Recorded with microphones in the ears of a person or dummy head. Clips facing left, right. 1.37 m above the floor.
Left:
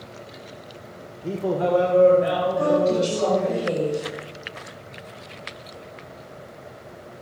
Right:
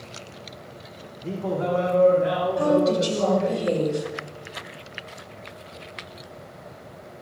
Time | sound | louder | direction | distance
1.2 | a man speaking | left 3 dB | 15° left (ahead or behind) | 0.7 m
2.6 | a woman speaking | even | 10° right (ahead or behind) | 3 m